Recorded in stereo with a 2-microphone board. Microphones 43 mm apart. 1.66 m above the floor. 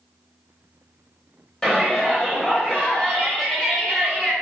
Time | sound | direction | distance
1.6 | a shout | 15° left (ahead or behind) | 1.0 m